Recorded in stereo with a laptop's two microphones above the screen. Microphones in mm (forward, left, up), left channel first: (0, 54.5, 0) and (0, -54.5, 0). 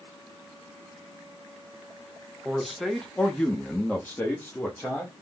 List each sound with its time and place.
2.5 s a man speaking: centre (ahead or behind), 0.8 m; by 5.1 s 15° left (ahead or behind), 1.3 m